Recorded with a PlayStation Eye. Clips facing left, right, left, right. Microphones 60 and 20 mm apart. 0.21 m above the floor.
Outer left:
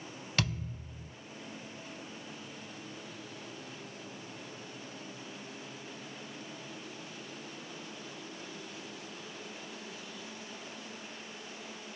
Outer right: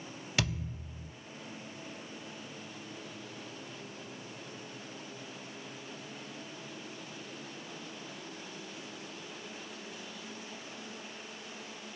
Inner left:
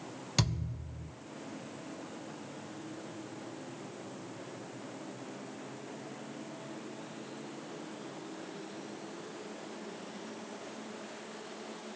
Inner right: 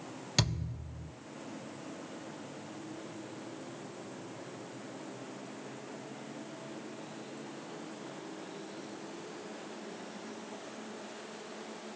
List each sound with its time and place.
0.4 s a thud: 10° right (ahead or behind), 2 m